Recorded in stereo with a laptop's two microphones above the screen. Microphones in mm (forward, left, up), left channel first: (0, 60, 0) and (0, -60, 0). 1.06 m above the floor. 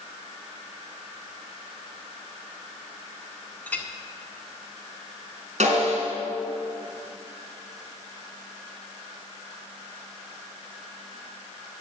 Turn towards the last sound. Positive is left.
turn(degrees=-80)